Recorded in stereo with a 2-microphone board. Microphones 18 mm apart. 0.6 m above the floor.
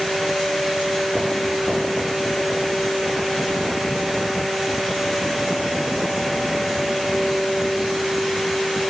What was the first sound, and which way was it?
Only background noise.